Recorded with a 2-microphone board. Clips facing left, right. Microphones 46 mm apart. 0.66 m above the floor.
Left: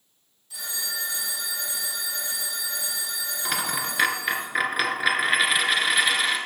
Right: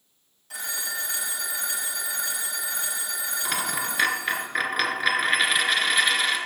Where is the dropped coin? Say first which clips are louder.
Left 1 dB; 5° left (ahead or behind), 1.7 m.